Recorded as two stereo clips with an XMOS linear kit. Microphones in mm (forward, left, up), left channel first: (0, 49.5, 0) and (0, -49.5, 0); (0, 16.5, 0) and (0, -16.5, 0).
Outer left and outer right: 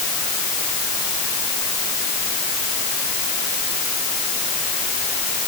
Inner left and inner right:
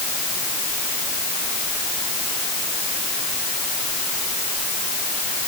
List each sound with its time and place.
Only background noise.